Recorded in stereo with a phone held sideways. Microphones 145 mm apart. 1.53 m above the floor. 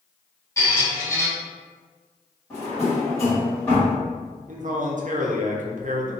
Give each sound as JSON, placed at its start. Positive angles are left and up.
{"t": 0.6, "sound": "a squeak", "side_deg": 20, "distance_m": 1.0}
{"t": 2.5, "sound": "a drawer", "side_deg": 20, "distance_m": 1.5}
{"t": 4.5, "sound": "a man speaking", "side_deg": -60, "distance_m": 0.5}